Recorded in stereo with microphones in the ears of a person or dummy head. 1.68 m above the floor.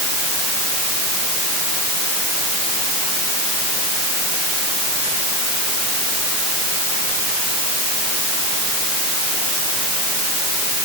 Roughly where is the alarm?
I don't hear an alarm.